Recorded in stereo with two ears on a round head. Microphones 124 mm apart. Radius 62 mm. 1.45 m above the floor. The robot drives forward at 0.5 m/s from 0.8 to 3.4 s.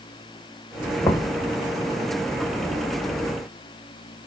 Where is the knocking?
20° left (ahead or behind), 1.4 m.